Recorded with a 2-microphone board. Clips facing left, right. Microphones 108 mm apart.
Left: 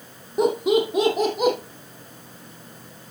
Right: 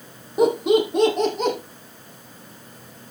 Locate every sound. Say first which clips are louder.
0.4 s laughter: right 2 dB; centre (ahead or behind), 4 m; by 1.6 s 10° left (ahead or behind), 4 m